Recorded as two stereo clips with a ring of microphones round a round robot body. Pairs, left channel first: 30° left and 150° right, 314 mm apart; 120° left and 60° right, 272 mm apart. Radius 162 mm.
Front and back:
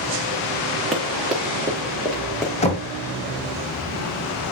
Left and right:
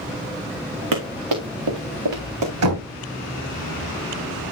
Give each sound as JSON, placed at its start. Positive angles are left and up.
{"t": 0.9, "sound": "running footsteps", "azimuth_deg": -60, "distance_m": 3.0}
{"t": 2.6, "sound": "knocking", "azimuth_deg": -40, "distance_m": 3.0}